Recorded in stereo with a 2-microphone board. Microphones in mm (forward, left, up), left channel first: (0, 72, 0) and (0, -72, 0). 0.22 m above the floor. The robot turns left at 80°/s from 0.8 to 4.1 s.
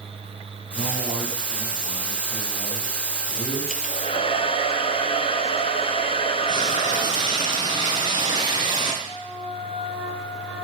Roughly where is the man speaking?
Ahead right.